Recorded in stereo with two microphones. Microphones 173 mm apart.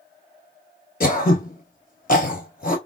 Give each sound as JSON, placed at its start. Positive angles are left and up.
{"t": 1.0, "sound": "throat clearing", "side_deg": 55, "distance_m": 1.0}